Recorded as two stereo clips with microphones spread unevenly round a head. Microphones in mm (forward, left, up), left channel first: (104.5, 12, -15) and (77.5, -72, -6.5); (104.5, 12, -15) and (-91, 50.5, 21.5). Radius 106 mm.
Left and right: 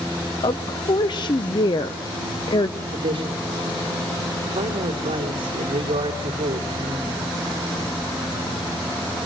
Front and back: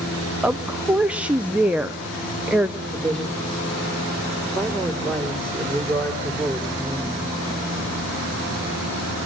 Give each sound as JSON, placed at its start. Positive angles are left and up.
{"t": 0.4, "sound": "a woman speaking", "azimuth_deg": 80, "distance_m": 0.5}
{"t": 2.9, "sound": "a man speaking", "azimuth_deg": -100, "distance_m": 2.5}